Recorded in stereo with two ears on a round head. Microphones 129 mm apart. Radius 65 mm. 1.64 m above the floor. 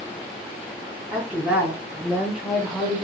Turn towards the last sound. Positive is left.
turn(degrees=0)  # may be behind; listen again after turning